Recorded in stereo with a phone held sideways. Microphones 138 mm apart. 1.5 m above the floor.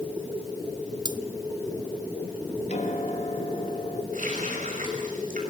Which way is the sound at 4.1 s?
75° right (ahead or behind).